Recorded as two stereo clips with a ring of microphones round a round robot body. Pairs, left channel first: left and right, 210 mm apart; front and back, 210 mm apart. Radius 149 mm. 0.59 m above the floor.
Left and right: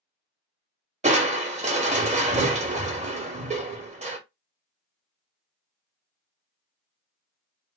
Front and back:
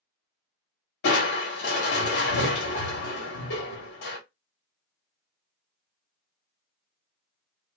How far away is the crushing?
About 0.8 m.